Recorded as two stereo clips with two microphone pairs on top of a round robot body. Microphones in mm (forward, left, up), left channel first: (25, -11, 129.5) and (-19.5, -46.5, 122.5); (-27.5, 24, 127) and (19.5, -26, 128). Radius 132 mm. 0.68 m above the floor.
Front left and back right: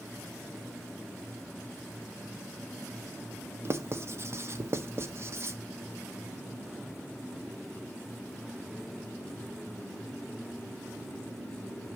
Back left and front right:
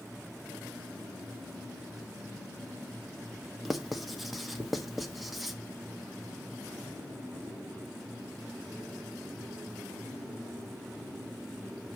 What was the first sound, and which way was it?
Writing, 135° right.